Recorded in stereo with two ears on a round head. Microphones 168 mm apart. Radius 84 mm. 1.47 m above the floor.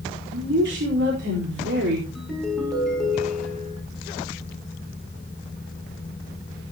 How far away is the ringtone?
About 7.5 m.